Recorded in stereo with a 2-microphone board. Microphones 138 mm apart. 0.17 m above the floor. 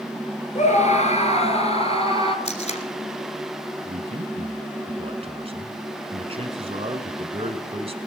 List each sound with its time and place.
0.6 s a scream: 60° left (ahead or behind), 2.5 m; by 2.4 s 40° left (ahead or behind), 3 m
2.5 s tape being pulled: 55° left (ahead or behind), 1.7 m
3.8 s a man speaking: 45° right (ahead or behind), 1.6 m